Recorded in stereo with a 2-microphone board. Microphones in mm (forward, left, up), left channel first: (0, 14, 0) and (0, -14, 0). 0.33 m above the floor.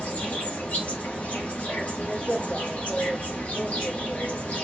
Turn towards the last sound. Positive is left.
turn(degrees=65)  # may be behind; listen again after turning